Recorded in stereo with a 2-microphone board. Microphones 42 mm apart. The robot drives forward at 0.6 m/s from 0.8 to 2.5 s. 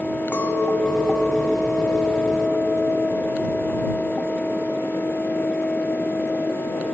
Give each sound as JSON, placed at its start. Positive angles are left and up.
{"t": 0.3, "sound": "a clink", "side_deg": 35, "distance_m": 7.0}